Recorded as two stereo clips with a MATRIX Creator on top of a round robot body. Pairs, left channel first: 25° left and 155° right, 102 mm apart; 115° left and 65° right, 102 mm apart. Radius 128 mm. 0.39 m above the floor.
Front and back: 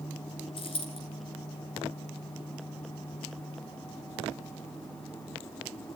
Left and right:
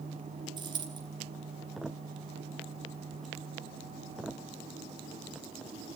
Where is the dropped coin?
15° right, 2 m.